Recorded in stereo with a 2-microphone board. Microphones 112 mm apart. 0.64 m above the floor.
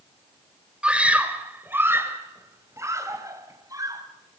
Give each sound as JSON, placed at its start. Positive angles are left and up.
{"t": 0.8, "sound": "a scream", "side_deg": -10, "distance_m": 3.0}